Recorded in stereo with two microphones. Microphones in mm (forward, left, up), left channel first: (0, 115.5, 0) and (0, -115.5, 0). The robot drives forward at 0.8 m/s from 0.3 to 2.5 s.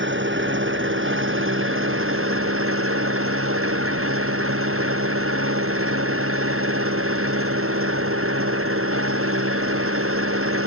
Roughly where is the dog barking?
I don't hear a dog barking.